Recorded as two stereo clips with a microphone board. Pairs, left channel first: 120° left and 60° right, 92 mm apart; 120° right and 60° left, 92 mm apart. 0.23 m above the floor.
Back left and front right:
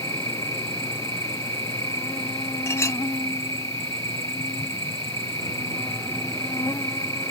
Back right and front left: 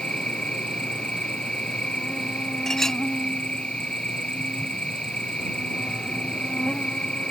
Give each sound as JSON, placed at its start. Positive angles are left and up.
{"t": 0.0, "sound": "an insect", "azimuth_deg": 165}
{"t": 2.7, "sound": "a clink", "azimuth_deg": 155}